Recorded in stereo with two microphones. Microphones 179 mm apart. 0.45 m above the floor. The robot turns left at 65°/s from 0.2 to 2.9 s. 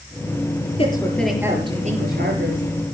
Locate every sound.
0.8 s a woman speaking: 30° left, 7 m; by 2.6 s 90° right, 7 m